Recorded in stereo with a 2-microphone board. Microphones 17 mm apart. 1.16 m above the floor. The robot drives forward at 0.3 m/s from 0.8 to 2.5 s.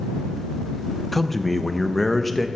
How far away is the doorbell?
No doorbell in this recording.